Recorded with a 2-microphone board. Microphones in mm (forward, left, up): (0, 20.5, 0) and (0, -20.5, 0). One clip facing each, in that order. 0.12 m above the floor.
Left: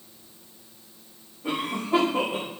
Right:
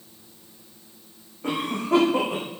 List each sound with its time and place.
1.4 s a cough: 55° right (ahead or behind), 7 m